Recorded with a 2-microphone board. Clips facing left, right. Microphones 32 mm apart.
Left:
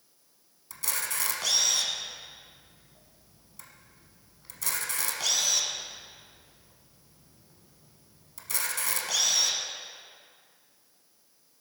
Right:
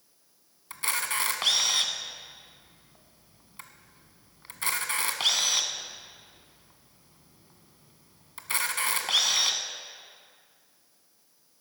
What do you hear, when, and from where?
0.7 s a camera shutter: 45° right (ahead or behind), 1.1 m